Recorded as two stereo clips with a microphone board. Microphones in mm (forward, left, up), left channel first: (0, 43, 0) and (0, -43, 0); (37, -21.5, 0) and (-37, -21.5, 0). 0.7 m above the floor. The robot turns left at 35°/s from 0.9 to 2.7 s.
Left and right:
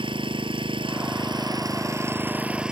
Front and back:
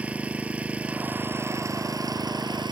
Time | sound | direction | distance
0.0 | an engine running | 110° right | ?